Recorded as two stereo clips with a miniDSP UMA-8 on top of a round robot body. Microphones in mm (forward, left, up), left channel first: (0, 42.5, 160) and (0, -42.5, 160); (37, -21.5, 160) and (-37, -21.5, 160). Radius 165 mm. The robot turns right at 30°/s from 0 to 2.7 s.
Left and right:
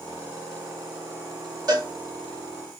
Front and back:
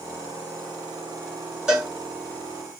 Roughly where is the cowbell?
Right.